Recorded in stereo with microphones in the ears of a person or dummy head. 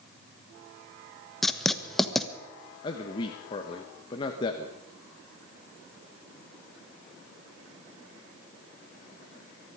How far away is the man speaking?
About 1.4 m.